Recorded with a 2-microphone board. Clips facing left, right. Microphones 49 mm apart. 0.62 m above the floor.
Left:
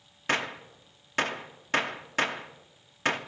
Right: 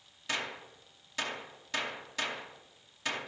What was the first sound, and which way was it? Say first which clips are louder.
A gunshot: left 7 dB; 45° left (ahead or behind).